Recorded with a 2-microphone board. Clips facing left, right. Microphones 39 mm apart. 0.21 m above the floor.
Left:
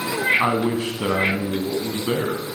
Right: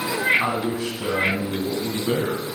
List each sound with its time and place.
0.4 s a man speaking: 40° left (ahead or behind), 1.2 m